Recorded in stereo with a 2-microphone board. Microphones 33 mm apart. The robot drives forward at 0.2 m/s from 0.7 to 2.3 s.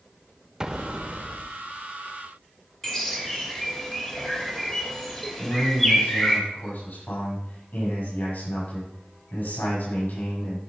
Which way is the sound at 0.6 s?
20° right (ahead or behind).